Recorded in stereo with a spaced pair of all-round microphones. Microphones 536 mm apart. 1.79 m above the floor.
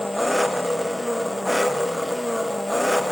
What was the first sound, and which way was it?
An engine running, centre (ahead or behind).